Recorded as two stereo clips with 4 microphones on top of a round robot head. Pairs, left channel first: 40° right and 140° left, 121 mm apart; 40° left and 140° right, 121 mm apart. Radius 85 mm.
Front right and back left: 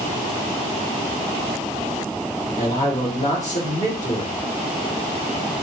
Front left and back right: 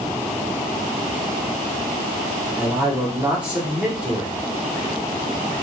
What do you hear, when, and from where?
2.6 s a man speaking: 60° right, 2.5 m